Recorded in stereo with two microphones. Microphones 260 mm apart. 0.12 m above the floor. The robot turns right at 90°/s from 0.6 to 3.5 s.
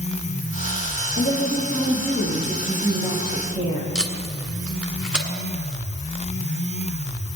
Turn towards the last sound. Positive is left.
turn(degrees=-5)  # may be behind; listen again after turning